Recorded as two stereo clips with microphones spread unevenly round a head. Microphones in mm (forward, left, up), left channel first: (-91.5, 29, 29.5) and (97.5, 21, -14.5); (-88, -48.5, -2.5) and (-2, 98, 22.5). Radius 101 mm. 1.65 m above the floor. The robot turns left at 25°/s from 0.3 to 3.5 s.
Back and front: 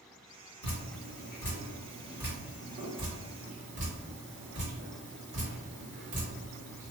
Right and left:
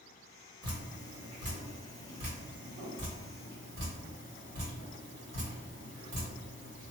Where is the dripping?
125° left, 1.7 m; by 6.9 s 50° left, 1.7 m.